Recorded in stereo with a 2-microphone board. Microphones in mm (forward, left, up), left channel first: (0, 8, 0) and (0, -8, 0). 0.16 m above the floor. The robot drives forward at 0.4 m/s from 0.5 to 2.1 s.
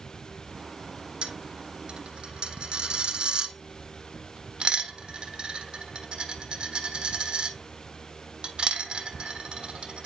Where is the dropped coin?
85° right, 1.1 m; by 10.1 s 75° right (ahead or behind), 1.1 m.